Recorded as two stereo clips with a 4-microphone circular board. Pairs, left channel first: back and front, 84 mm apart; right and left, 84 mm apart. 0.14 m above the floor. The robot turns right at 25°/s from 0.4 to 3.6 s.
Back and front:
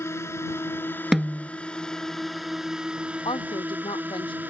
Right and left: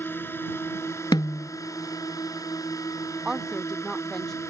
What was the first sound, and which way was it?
A drone, 140° right.